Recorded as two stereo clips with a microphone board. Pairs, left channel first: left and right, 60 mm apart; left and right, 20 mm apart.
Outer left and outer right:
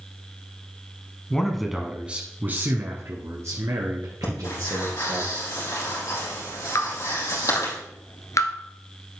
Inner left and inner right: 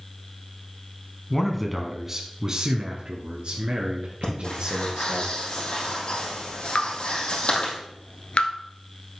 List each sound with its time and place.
1.3 s a man speaking: 10° left (ahead or behind), 1.3 m; by 5.2 s 65° right (ahead or behind), 3.5 m
4.2 s breathing: 60° left (ahead or behind), 4.5 m
6.8 s dripping: 60° left (ahead or behind), 1.2 m